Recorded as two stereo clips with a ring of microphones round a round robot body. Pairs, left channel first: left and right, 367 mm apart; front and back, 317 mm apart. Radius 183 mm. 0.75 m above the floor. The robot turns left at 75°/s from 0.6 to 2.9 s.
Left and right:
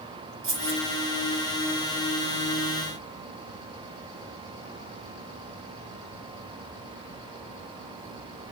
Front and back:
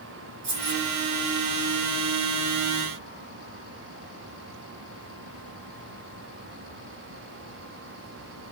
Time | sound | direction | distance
0.4 | keys jangling | 150° right | 1.8 m